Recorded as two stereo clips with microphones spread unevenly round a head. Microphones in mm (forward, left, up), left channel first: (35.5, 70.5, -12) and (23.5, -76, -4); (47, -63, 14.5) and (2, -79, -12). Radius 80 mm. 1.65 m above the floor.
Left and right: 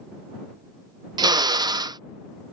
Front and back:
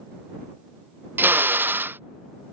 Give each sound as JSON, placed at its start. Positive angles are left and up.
{"t": 1.2, "sound": "a drill", "azimuth_deg": -90}